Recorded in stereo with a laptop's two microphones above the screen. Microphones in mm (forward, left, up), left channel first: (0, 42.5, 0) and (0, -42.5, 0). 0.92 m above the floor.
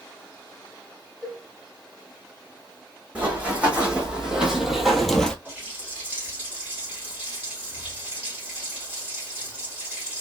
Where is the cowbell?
20° left (ahead or behind), 2.5 m.